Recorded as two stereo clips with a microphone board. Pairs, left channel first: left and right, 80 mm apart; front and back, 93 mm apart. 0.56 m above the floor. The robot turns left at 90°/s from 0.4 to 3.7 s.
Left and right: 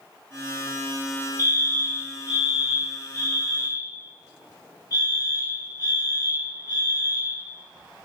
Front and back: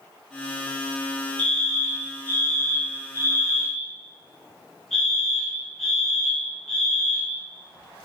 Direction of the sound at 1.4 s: 65° right.